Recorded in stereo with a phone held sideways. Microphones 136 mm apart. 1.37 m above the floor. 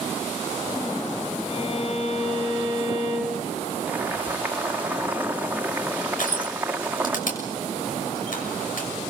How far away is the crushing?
About 6.5 m.